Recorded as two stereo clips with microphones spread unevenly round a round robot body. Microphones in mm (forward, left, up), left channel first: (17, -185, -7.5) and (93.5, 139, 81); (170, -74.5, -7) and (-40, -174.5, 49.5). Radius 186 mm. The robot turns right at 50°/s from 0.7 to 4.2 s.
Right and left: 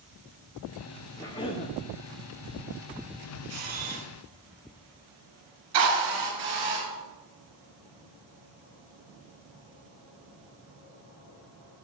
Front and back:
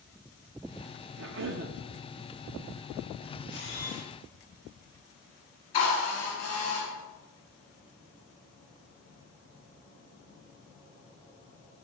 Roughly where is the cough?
Behind.